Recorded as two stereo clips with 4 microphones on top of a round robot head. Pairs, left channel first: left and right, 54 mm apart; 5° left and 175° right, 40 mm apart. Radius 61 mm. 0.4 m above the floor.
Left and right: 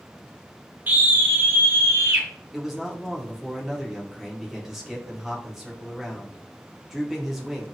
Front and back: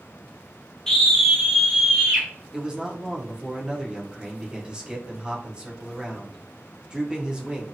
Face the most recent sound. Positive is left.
turn(degrees=-165)